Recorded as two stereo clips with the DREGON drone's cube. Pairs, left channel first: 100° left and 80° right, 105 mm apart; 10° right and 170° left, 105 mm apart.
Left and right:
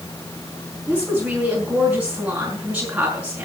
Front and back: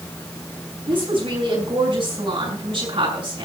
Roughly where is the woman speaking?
Behind.